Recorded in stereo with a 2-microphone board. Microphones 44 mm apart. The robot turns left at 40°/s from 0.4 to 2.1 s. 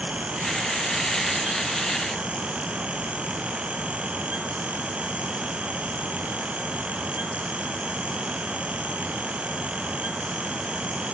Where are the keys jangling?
I don't hear keys jangling.